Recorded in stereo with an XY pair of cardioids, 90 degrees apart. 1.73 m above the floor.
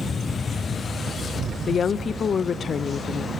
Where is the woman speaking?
55° left, 0.8 m.